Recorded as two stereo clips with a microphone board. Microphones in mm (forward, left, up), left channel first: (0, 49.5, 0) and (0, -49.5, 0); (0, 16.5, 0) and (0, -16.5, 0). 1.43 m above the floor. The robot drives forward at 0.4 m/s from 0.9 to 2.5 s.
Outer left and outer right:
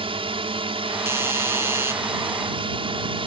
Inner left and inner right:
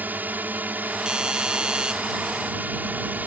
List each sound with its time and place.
0.0 s a drone: 70° right (ahead or behind)
1.1 s a doorbell: 25° right (ahead or behind)